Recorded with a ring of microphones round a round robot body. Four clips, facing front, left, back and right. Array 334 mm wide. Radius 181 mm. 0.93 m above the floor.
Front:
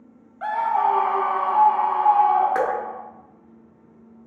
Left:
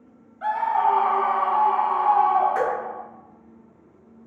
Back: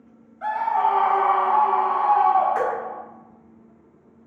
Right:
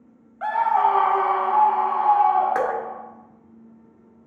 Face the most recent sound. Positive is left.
turn(degrees=-45)